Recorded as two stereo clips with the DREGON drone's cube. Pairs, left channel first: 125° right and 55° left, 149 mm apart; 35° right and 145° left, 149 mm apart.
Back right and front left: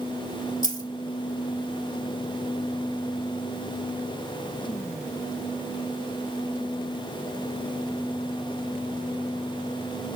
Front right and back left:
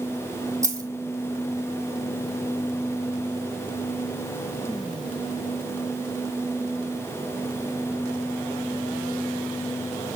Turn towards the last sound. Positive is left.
turn(degrees=-145)